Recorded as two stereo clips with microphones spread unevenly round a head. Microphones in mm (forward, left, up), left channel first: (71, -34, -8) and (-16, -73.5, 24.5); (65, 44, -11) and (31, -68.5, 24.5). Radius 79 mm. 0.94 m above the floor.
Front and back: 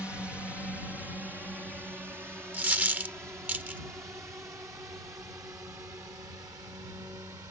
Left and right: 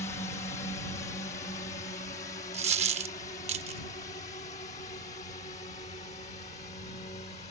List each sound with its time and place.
0.0 s a drone: 110° left; by 7.5 s 130° left
2.5 s a dropped coin: 85° right